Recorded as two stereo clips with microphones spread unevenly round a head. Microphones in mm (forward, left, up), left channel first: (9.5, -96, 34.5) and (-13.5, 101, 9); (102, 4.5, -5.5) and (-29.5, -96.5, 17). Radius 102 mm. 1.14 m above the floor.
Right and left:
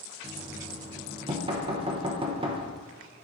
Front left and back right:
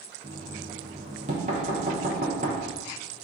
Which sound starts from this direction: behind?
Knocking, at 0.2 s.